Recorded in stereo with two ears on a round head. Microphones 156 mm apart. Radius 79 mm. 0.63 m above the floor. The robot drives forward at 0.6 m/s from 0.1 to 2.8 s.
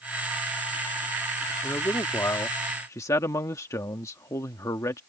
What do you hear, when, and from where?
1.6 s a man speaking: 15° left (ahead or behind); by 5.0 s 20° left (ahead or behind)